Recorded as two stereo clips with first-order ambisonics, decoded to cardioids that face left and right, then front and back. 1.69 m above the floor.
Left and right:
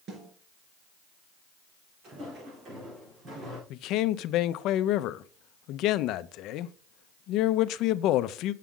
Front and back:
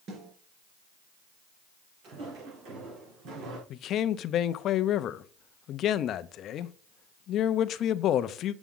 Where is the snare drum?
140° right, 4 m.